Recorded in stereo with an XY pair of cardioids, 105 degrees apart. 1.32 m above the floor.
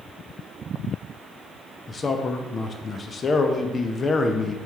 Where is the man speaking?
35° left, 0.6 m.